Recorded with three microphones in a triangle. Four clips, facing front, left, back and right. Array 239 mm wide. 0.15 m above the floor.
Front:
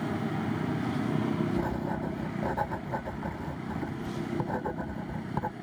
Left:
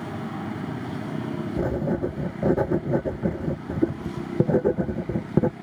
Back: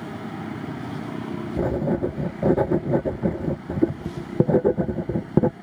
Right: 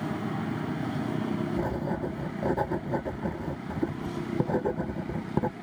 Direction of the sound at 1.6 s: 155° left.